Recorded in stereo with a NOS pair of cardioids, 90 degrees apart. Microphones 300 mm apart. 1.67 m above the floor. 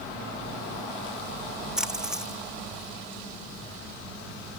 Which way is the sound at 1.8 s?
Straight ahead.